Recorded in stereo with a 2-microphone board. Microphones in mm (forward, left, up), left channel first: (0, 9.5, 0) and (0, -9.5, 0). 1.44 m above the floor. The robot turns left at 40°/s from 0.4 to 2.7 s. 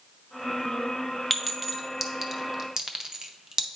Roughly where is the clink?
Centre.